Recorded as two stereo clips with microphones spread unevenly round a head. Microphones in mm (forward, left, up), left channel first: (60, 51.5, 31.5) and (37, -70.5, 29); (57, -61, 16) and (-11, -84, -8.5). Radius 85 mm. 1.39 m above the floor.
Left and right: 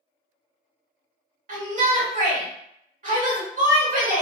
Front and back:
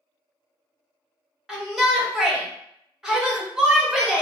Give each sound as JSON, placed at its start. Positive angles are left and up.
{"t": 1.5, "sound": "a shout", "azimuth_deg": -85, "distance_m": 1.4}